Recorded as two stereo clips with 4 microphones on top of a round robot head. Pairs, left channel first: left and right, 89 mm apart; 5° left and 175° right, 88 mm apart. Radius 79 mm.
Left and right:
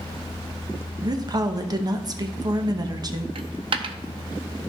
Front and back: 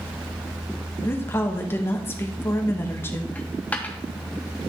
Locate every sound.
1.0 s a woman speaking: 55° right, 1.1 m
3.4 s a dropped coin: 75° right, 0.5 m